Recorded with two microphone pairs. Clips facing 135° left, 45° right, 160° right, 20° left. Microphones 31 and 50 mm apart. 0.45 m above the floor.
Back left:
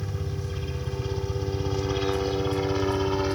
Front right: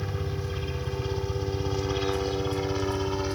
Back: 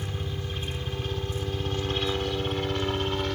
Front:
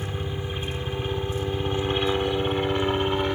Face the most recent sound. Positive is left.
turn(degrees=70)